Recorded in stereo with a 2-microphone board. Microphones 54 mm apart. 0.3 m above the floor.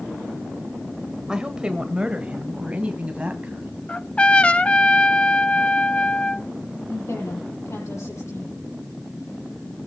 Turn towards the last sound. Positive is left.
turn(degrees=70)  # may be behind; listen again after turning